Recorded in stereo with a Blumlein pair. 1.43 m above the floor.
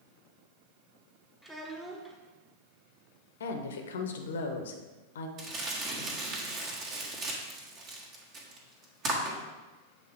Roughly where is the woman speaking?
Ahead left.